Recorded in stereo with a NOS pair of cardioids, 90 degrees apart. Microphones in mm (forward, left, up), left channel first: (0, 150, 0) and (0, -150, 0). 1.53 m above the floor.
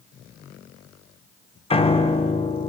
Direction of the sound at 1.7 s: 20° left.